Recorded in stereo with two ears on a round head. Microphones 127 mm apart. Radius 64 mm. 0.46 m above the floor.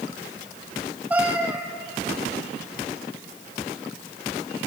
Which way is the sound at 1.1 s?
10° right (ahead or behind).